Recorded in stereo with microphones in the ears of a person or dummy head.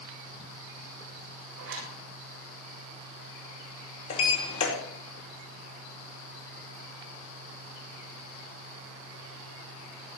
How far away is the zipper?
About 7.5 m.